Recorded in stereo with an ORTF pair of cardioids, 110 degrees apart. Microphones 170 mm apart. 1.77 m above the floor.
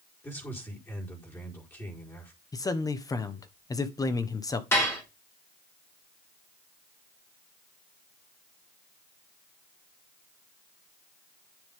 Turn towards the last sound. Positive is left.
turn(degrees=15)